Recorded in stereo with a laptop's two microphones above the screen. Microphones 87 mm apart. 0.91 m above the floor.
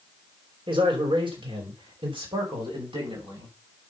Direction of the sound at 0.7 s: 80° right.